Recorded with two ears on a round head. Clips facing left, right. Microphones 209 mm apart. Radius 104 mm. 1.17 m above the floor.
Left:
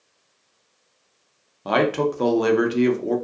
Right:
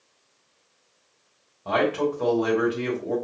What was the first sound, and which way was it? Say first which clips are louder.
A man speaking: left 3 dB; 60° left (ahead or behind).